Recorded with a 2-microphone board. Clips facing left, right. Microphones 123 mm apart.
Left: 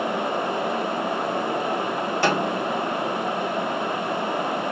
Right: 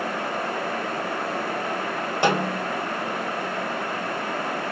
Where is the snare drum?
20° right (ahead or behind), 1.4 m.